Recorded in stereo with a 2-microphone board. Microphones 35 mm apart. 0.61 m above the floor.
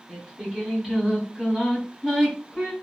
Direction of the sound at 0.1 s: 10° right (ahead or behind).